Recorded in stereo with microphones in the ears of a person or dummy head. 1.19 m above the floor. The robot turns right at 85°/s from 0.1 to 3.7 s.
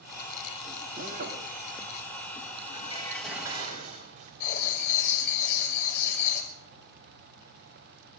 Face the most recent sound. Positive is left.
turn(degrees=55)  # may be behind; listen again after turning